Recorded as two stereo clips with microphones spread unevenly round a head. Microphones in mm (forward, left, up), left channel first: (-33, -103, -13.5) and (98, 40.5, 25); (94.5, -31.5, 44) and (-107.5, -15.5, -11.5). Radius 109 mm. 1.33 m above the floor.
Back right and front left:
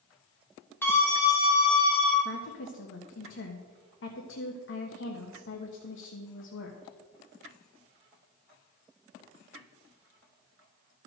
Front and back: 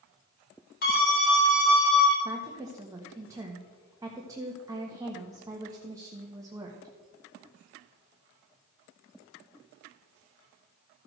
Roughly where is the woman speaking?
Right.